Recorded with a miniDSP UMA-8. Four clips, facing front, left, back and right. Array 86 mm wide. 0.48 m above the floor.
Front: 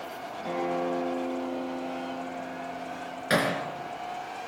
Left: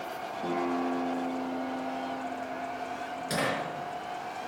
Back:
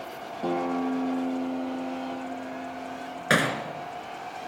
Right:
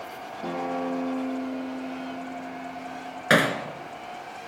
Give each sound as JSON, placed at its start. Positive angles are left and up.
{"t": 0.4, "sound": "a guitar", "azimuth_deg": -175, "distance_m": 7.0}
{"t": 3.3, "sound": "hammering", "azimuth_deg": -115, "distance_m": 3.0}